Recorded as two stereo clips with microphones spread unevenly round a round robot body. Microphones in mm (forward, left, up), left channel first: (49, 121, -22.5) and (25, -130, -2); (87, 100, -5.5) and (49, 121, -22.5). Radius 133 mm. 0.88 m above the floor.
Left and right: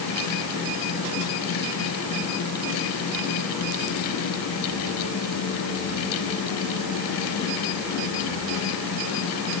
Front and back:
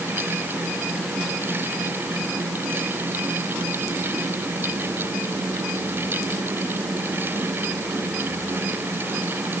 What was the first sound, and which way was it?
Only background noise.